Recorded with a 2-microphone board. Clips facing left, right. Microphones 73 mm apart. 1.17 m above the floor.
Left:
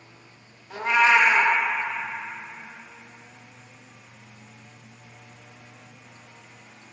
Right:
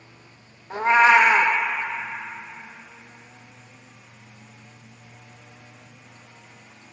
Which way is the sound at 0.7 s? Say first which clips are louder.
Right 4 dB; 35° right (ahead or behind).